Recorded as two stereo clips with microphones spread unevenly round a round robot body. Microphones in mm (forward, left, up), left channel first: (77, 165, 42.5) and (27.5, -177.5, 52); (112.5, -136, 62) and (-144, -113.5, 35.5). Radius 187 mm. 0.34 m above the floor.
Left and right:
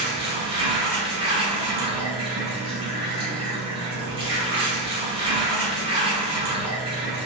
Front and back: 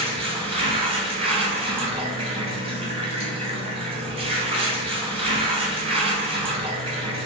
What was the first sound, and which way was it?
Running water, 160° right.